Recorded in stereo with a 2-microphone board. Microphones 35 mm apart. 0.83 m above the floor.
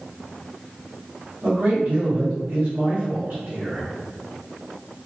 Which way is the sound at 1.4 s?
40° right (ahead or behind).